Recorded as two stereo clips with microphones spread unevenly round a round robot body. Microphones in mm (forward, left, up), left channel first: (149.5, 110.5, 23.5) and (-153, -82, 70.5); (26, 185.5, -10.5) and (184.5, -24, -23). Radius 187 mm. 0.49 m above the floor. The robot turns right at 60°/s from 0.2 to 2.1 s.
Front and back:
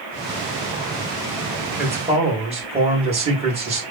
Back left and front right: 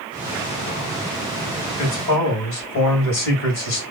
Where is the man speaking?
120° left, 3 m; by 3.8 s 135° left, 3 m.